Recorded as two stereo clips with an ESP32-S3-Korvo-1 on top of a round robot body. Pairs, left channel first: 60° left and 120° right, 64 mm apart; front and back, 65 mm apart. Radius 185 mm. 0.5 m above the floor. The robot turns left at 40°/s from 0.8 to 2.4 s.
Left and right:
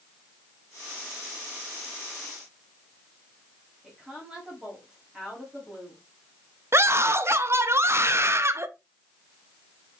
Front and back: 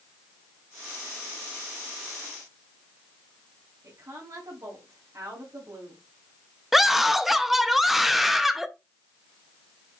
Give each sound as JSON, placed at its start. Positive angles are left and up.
{"t": 3.8, "sound": "a woman speaking", "azimuth_deg": 160, "distance_m": 3.5}
{"t": 6.7, "sound": "a scream", "azimuth_deg": -95, "distance_m": 1.1}